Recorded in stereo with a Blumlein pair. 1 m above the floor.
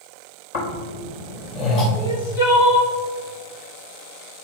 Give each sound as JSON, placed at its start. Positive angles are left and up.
{"t": 0.5, "sound": "snoring", "azimuth_deg": 50, "distance_m": 4.0}
{"t": 1.9, "sound": "crying", "azimuth_deg": 55, "distance_m": 2.0}